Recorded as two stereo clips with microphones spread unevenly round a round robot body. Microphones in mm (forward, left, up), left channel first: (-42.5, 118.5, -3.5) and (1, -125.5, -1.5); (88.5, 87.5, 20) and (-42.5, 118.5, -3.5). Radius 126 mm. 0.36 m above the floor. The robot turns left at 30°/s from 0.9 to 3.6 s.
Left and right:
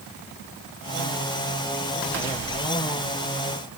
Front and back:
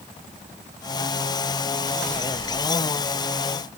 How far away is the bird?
I don't hear a bird.